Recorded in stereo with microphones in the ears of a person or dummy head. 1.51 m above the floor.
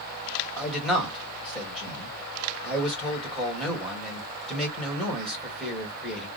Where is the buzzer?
I don't hear a buzzer.